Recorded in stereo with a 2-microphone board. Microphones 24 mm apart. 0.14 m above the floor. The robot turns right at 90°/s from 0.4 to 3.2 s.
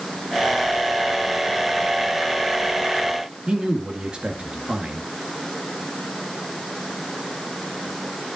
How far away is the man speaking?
About 1.9 m.